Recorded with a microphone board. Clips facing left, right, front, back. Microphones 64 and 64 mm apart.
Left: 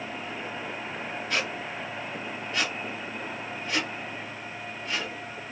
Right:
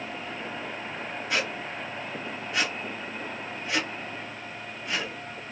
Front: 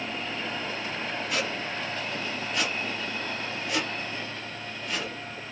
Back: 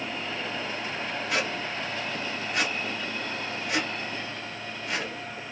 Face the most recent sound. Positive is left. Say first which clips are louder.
# right 1 dB, back 3 dB
turn(degrees=-160)